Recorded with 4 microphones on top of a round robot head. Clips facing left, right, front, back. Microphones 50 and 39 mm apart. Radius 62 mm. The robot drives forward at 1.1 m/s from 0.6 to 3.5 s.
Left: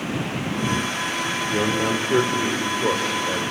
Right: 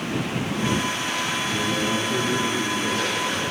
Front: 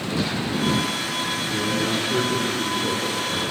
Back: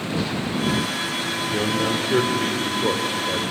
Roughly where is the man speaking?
Left.